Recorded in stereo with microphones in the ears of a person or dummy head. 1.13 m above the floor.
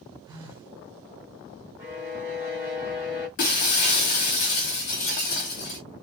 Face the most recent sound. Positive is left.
turn(degrees=40)  # may be behind; listen again after turning